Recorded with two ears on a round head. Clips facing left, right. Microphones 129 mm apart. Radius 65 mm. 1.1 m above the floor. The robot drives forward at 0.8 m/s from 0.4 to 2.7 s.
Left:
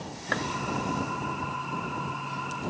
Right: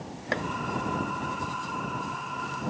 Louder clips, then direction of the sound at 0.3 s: Even; 20° right (ahead or behind).